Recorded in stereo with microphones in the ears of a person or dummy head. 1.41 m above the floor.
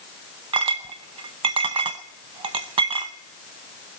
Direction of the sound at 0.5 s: 25° right (ahead or behind).